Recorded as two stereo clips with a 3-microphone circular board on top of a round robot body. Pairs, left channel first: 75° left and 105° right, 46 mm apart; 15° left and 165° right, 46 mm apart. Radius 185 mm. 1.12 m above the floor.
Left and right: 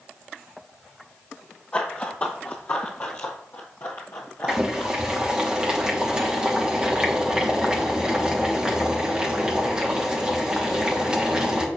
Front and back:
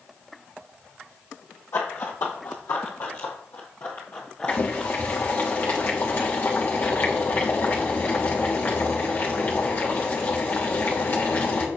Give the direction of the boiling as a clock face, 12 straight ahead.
1 o'clock.